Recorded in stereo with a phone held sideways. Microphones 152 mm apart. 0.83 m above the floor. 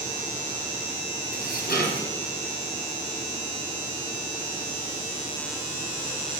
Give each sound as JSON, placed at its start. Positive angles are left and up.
{"t": 1.3, "sound": "dishes clattering", "side_deg": 90, "distance_m": 3.5}